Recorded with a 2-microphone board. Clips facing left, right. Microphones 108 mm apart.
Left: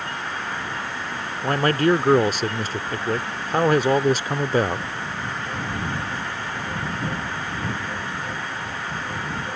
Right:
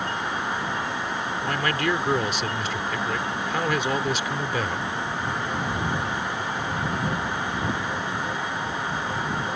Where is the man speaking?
40° left (ahead or behind).